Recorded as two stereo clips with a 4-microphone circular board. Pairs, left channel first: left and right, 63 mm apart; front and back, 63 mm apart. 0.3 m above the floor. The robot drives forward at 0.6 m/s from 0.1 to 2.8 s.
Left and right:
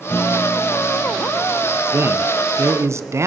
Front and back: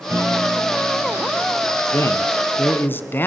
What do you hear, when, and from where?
0.1 s a guitar: 145° left, 2.5 m; by 1.8 s 155° left, 3 m
1.9 s a man speaking: 45° right, 3 m; by 3.3 s 55° right, 2.5 m